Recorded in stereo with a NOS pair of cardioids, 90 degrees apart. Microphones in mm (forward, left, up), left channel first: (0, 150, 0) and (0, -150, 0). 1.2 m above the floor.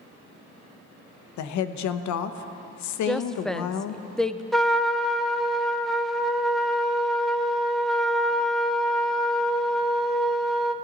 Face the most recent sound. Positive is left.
turn(degrees=0)